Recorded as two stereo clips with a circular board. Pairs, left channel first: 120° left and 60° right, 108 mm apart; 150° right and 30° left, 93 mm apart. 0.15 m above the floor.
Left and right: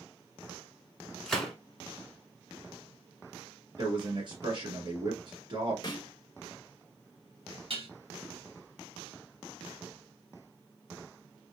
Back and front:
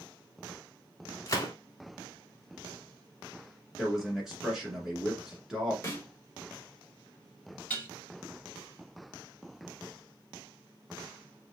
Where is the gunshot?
160° right, 0.9 m.